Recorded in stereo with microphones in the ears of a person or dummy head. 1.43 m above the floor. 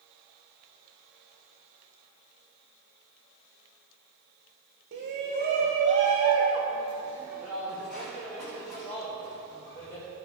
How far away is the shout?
About 1.4 m.